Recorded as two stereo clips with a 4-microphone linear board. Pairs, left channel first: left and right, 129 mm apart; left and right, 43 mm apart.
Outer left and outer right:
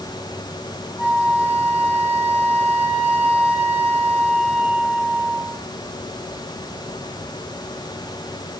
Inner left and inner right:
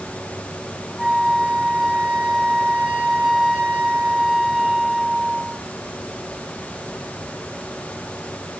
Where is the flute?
10° right (ahead or behind), 1.2 m.